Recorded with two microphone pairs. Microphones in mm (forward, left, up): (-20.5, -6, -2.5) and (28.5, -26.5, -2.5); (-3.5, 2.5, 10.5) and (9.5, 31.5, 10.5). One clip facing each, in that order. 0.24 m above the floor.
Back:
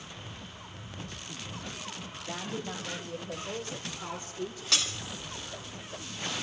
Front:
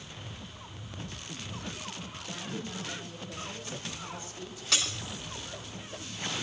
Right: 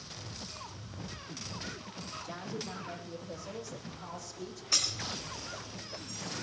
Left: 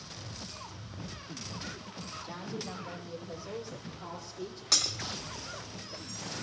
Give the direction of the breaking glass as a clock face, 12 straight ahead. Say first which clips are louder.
Front 1 dB, left 2 dB; 10 o'clock.